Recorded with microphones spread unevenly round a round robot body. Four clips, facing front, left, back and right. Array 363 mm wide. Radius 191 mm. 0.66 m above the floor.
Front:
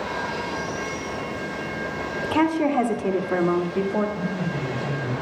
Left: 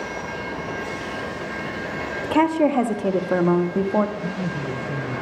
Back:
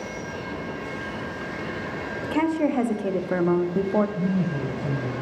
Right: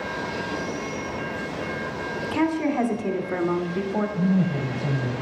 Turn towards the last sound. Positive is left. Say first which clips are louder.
# right 5 dB, back 2 dB
turn(degrees=-125)